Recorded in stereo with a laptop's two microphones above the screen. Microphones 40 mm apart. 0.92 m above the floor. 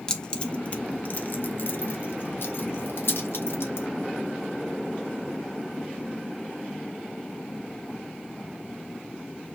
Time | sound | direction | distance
0.1 | keys jangling | 15° left (ahead or behind) | 1.0 m